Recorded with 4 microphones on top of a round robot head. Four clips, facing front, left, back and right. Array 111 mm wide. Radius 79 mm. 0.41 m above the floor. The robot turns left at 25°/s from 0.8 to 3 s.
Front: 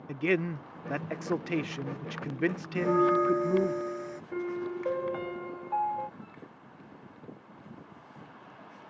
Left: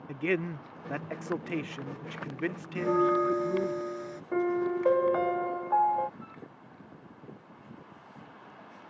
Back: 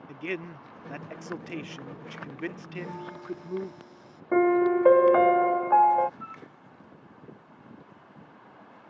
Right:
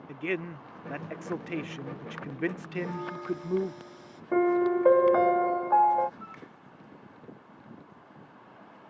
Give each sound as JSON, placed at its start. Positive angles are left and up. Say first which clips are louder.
{"t": 0.1, "sound": "a man speaking", "louder": "left 3 dB, front 7 dB", "azimuth_deg": 20}
{"t": 2.8, "sound": "a bell", "louder": "left 9 dB, front 14 dB", "azimuth_deg": 45}
{"t": 4.3, "sound": "a piano", "louder": "right 5 dB, back 14 dB", "azimuth_deg": -160}
{"t": 6.2, "sound": "a flute", "louder": "right 1 dB, back 5 dB", "azimuth_deg": -160}